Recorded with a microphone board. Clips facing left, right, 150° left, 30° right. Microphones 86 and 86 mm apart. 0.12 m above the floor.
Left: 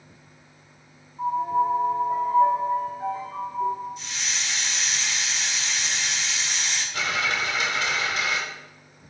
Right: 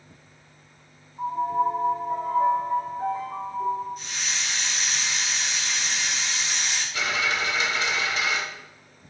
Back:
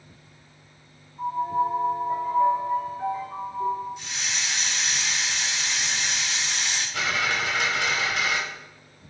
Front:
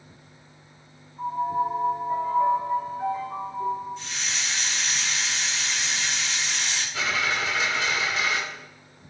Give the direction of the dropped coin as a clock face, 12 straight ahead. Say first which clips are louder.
Even, even; 8 o'clock.